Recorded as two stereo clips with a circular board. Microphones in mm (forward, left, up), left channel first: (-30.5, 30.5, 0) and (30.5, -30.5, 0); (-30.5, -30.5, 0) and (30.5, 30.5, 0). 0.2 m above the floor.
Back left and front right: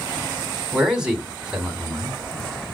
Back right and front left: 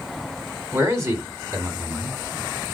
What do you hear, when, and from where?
0.7 s a man speaking: 30° left, 1.2 m